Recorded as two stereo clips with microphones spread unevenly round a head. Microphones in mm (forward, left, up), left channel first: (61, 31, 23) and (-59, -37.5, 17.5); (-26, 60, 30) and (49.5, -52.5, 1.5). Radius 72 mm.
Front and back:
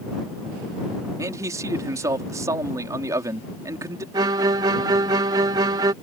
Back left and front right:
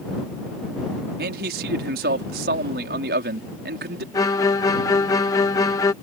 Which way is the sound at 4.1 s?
155° left.